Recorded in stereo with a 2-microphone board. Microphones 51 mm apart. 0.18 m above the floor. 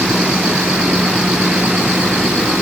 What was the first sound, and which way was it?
Only background noise.